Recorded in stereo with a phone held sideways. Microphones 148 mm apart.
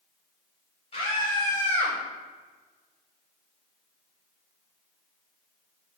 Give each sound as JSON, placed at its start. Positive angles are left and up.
{"t": 0.9, "sound": "a scream", "side_deg": 45, "distance_m": 2.5}